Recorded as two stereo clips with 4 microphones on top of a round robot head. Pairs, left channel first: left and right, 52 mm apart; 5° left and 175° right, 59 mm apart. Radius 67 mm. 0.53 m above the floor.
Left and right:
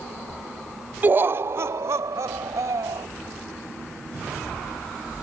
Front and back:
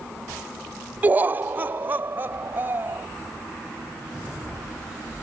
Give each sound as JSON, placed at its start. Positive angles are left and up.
{"t": 1.0, "sound": "laughter", "azimuth_deg": -125}